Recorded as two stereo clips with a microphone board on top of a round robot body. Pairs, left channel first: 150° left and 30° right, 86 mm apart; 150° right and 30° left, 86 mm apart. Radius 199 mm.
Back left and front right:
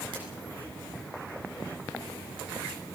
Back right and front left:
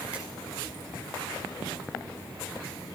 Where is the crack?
50° right, 8 m.